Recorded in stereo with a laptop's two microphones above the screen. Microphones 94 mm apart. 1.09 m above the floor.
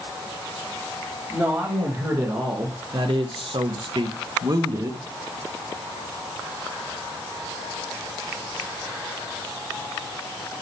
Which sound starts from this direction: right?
A man speaking, at 1.3 s.